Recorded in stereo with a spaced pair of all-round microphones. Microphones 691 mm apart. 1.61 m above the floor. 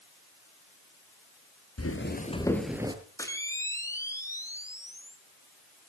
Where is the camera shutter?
5° left (ahead or behind), 2.5 m.